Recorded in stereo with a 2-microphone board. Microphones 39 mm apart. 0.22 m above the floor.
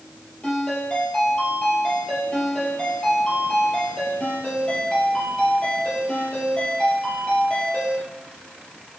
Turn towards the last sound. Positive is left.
turn(degrees=25)  # may be behind; listen again after turning